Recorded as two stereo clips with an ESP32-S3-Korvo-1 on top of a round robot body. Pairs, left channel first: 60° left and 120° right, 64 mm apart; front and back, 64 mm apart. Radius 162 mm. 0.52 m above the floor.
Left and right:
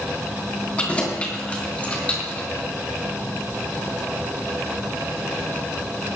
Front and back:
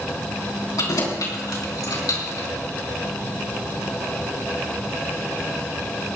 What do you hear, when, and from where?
0.8 s keys jangling: 10° right, 4 m; by 2.5 s 5° right, 4.5 m